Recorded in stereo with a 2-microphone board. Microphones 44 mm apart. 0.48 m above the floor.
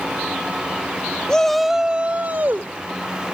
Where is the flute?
No flute in this recording.